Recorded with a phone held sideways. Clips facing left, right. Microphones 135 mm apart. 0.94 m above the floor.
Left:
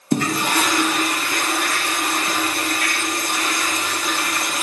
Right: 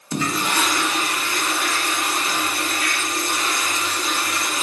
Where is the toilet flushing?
55° left (ahead or behind), 0.7 m.